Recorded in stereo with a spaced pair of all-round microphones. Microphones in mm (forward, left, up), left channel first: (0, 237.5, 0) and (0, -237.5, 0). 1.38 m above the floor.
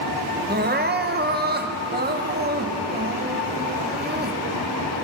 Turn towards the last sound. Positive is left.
turn(degrees=-20)  # may be behind; listen again after turning